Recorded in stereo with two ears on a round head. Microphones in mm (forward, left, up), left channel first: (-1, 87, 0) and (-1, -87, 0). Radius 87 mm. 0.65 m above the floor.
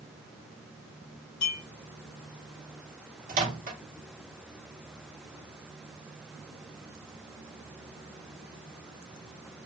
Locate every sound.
1.4 s a clink: 55° left (ahead or behind), 1.4 m
3.3 s a microwave: 40° right (ahead or behind), 0.8 m